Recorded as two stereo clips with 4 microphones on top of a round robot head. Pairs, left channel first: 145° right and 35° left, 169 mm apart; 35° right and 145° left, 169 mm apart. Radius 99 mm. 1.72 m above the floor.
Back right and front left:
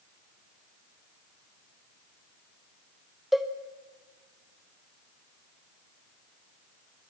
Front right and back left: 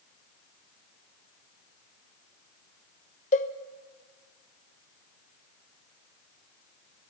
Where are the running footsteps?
I don't hear running footsteps.